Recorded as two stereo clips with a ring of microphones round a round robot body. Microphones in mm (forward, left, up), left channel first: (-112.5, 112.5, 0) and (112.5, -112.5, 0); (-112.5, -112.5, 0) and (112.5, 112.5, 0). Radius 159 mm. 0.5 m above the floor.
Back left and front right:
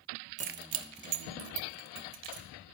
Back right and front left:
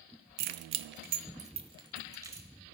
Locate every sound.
0.4 s keys jangling: 20° left, 0.5 m; by 2.5 s 35° right, 1.4 m